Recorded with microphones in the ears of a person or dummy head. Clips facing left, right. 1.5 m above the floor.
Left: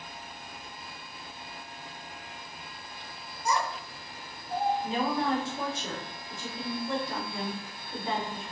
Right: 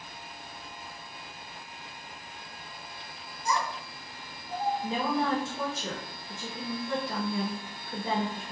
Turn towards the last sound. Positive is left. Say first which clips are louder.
# even
turn(degrees=-75)  # may be behind; listen again after turning